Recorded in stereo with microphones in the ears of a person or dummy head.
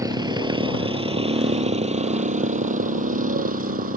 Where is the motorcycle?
20° right (ahead or behind); by 4.0 s 45° right (ahead or behind).